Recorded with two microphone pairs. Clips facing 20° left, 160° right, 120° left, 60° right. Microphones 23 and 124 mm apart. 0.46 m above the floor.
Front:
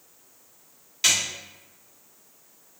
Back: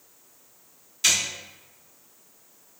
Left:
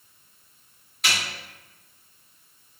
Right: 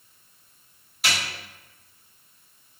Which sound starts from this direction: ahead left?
A snare drum, at 1.0 s.